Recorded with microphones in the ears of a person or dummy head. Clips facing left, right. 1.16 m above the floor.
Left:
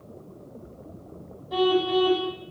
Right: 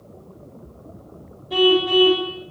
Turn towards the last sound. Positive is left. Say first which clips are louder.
# right 5 dB
turn(degrees=-40)  # may be behind; listen again after turning